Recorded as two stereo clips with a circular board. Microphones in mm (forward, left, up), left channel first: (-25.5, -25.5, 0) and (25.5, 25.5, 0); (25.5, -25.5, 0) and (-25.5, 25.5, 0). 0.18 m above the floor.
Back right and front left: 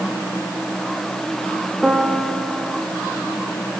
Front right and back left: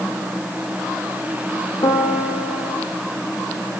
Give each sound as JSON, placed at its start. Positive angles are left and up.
{"t": 1.8, "sound": "a piano", "azimuth_deg": -40, "distance_m": 4.5}